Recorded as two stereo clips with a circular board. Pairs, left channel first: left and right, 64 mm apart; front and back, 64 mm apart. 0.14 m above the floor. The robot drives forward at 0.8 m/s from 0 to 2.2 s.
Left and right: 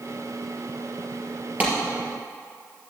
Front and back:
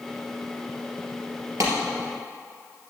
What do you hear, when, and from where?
1.6 s a clap: 155° right, 2.5 m